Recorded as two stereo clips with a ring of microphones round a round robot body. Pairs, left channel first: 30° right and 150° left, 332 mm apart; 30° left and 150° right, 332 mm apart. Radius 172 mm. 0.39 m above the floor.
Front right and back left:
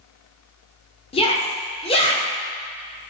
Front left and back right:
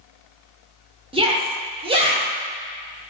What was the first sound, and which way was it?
A shout, 90° right.